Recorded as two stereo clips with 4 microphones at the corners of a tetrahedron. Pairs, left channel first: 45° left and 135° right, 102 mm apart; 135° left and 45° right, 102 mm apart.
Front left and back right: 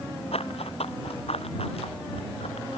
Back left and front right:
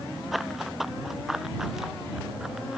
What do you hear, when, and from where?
0.3 s running footsteps: 45° left; by 2.8 s 40° left